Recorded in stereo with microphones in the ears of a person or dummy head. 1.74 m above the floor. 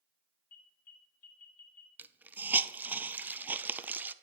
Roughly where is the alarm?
Left.